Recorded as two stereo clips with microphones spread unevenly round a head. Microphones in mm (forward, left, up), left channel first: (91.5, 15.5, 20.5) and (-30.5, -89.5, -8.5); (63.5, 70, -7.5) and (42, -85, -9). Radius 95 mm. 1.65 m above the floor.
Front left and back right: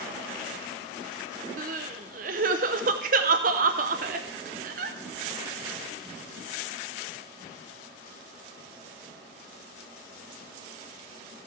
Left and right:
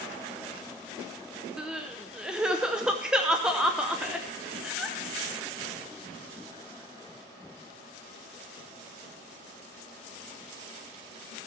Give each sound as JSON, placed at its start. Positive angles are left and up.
{"t": 1.6, "sound": "crying", "azimuth_deg": 175, "distance_m": 0.7}